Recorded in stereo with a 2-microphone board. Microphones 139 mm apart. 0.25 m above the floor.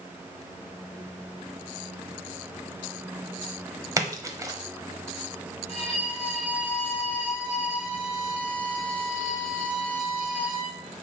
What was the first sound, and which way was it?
A splash, 25° right (ahead or behind).